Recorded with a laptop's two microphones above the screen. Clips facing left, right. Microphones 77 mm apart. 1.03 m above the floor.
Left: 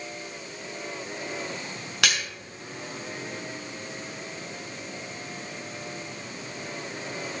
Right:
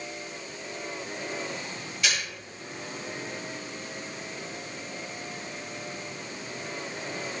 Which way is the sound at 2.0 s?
75° left (ahead or behind).